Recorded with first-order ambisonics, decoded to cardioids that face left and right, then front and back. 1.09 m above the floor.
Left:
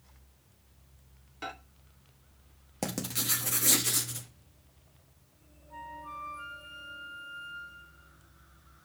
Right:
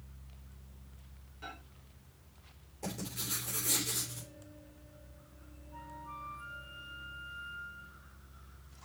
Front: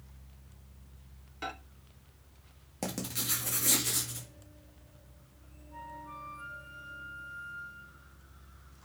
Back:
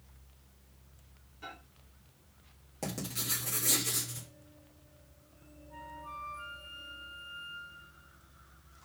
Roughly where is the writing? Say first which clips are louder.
Left 7 dB, front 2 dB; left.